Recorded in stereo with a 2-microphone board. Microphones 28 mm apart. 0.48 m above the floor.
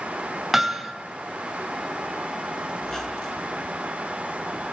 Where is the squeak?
20° left (ahead or behind), 3.5 m.